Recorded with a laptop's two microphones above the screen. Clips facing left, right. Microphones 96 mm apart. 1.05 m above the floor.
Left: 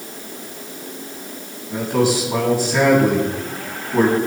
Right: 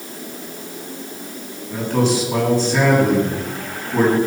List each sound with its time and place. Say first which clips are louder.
1.7 s a man speaking: even; 10° left (ahead or behind), 7.5 m